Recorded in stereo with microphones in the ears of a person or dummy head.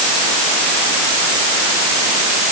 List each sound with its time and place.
Only background noise.